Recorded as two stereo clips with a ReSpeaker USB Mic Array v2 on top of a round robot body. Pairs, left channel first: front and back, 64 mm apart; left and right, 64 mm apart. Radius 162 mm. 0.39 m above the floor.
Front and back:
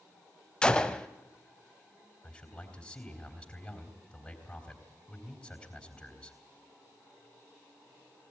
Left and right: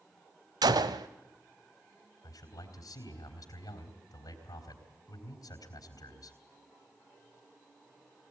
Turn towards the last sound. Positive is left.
turn(degrees=70)